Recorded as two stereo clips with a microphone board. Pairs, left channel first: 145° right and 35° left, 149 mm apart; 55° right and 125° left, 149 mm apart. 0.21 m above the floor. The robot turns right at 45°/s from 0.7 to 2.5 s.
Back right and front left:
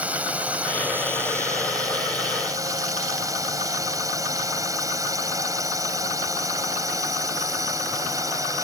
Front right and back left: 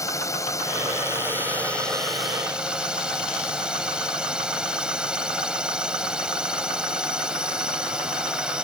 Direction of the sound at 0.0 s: 30° right.